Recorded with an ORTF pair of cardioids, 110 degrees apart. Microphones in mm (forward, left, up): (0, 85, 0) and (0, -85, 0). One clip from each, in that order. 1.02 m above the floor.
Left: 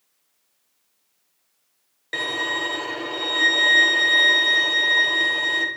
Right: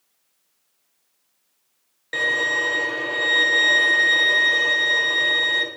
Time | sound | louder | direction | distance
2.1 | a violin | right 4 dB | 5° left | 0.8 m